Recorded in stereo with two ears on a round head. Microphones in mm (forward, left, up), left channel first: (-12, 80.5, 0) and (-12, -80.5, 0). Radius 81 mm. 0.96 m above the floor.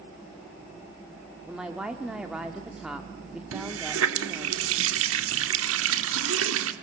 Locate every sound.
1.5 s a woman speaking: 5° right (ahead or behind), 1.7 m
3.5 s a running tap: 85° right, 1.5 m